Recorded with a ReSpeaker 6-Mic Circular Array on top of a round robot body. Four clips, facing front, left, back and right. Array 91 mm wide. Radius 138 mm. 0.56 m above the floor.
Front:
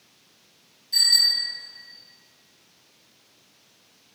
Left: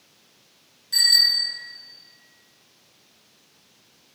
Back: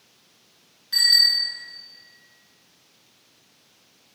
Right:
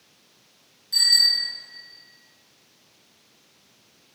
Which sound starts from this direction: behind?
A bicycle bell, at 0.9 s.